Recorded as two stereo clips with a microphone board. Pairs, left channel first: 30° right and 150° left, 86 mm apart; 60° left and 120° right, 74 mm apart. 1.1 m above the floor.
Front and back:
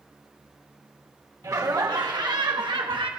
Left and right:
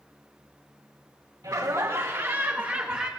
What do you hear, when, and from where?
1.4 s laughter: 160° right, 1.6 m; by 3.1 s 160° left, 1.5 m